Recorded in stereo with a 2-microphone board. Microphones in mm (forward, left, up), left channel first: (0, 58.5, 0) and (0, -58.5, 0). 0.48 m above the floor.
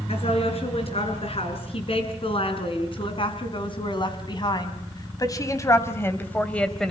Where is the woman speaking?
55° left (ahead or behind), 6 m; by 6.9 s 5° left (ahead or behind), 2.0 m.